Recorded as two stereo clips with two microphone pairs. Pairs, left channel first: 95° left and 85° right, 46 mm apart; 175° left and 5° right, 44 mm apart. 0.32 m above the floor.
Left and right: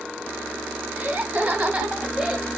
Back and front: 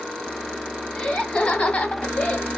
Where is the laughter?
130° right, 2.5 m; by 2.5 s 160° right, 2 m.